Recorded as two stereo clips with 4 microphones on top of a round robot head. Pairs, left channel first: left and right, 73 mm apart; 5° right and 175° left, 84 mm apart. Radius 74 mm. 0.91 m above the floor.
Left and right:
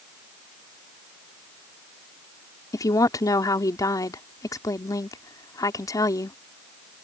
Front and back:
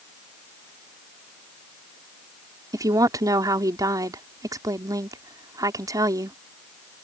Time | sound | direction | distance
2.7 | a woman speaking | 125° left | ?